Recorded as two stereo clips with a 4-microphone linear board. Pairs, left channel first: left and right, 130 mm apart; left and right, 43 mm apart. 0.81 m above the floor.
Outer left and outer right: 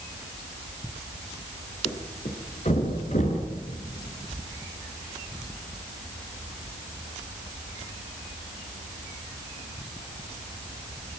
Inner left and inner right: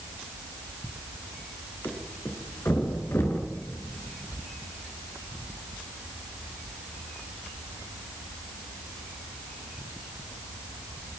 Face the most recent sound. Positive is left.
turn(degrees=80)